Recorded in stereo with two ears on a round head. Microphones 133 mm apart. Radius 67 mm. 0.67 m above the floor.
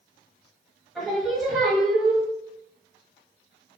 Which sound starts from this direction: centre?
Singing, at 0.9 s.